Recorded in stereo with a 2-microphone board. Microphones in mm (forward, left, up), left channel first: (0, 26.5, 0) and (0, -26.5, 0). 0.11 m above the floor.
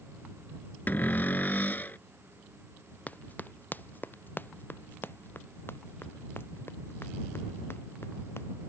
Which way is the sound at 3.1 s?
30° left (ahead or behind).